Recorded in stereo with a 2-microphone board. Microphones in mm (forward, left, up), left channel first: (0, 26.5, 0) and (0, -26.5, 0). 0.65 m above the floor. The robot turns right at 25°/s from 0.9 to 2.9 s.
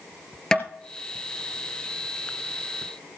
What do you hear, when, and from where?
0.5 s tapping: 20° left (ahead or behind), 2.5 m